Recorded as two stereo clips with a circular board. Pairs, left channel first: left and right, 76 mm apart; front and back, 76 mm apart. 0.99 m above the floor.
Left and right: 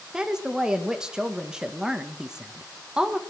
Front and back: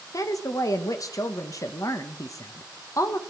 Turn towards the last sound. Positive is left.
turn(degrees=-10)